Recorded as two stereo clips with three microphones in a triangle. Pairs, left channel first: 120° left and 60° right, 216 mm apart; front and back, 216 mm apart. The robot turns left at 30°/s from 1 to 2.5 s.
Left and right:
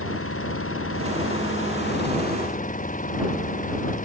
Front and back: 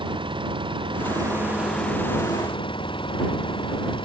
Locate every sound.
0.0 s an engine running: 115° left; by 4.0 s 70° left